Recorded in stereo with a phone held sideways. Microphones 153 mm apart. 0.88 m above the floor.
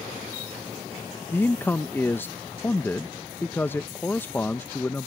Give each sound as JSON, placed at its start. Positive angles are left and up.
{"t": 1.3, "sound": "a man speaking", "side_deg": 15}